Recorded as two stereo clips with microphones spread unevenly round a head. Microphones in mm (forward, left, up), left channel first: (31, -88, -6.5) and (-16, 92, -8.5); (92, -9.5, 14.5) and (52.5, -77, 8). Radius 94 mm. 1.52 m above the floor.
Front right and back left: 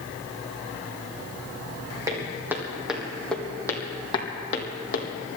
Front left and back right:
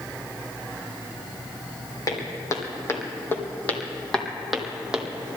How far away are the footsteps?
About 3.5 m.